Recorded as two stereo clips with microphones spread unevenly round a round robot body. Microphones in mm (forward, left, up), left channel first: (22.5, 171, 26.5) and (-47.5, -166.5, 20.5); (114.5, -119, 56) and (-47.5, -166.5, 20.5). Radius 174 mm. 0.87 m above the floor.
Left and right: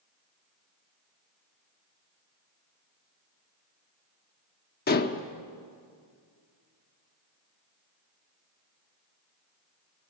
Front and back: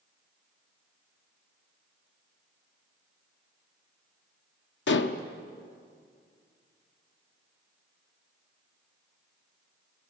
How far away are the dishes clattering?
About 1.0 m.